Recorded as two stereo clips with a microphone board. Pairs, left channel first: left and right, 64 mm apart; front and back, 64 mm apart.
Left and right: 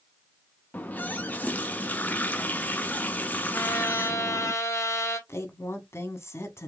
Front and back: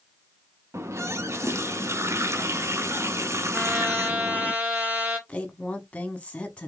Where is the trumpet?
120° left, 1.4 m.